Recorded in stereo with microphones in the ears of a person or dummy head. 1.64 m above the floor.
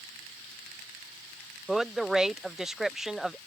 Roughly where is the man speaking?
Centre.